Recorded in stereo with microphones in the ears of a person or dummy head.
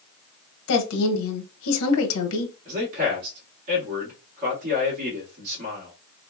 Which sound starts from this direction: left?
A woman speaking, at 0.7 s.